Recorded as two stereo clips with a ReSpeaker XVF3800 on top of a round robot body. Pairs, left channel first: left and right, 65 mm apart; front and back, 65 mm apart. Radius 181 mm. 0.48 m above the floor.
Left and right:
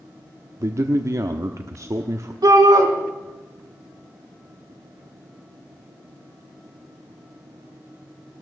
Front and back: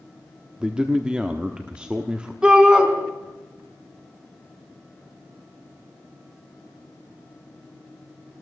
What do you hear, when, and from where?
0.6 s a man speaking: 105° right, 1.2 m
2.4 s a shout: 105° right, 5 m